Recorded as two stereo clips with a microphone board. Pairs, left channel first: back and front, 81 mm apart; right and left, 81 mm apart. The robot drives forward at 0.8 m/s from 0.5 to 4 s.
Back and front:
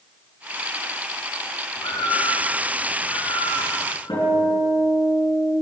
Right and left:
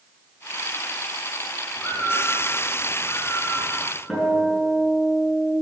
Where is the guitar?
Straight behind, 5.5 m.